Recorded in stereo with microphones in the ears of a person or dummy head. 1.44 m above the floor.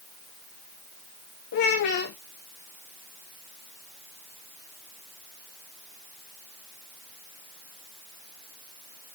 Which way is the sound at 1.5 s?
45° left (ahead or behind).